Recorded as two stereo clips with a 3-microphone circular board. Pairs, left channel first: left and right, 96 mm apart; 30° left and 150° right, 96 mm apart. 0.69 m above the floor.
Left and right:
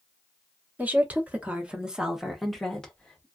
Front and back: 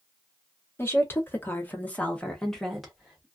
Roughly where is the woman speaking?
Ahead right.